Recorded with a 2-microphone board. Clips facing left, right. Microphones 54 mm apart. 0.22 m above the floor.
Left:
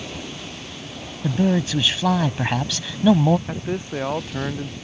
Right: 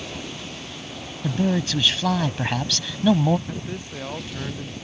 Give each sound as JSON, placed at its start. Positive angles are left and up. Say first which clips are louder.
{"t": 1.2, "sound": "a man speaking", "louder": "left 3 dB", "side_deg": 10}
{"t": 3.5, "sound": "a man speaking", "louder": "left 6 dB", "side_deg": 30}